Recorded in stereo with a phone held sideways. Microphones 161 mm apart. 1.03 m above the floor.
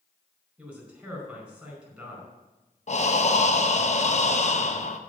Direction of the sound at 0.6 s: 15° right (ahead or behind).